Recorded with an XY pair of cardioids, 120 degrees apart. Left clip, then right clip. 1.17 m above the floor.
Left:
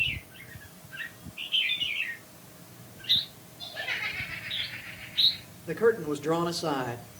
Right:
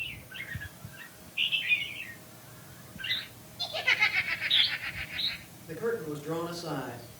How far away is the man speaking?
About 3 m.